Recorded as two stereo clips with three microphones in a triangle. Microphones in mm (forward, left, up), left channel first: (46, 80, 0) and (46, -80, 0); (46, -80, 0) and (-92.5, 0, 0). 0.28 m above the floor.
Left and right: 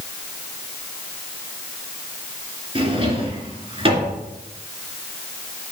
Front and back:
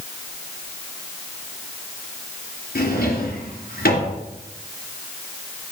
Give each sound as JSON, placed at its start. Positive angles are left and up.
{"t": 2.8, "sound": "a drawer", "azimuth_deg": -35, "distance_m": 2.0}